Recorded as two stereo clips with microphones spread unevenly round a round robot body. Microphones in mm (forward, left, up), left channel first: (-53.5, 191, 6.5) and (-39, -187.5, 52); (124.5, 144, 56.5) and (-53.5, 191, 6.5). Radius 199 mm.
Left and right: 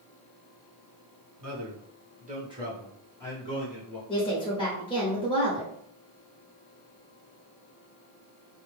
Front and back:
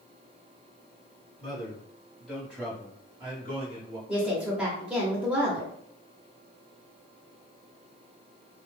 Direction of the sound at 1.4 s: 85° right.